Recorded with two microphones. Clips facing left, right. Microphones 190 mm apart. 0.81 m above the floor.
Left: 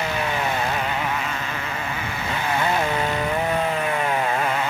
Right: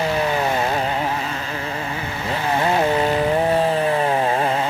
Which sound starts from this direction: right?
A motorcycle, at 0.0 s.